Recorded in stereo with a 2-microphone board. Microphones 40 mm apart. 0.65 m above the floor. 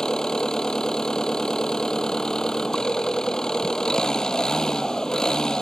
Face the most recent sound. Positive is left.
turn(degrees=20)  # may be behind; listen again after turning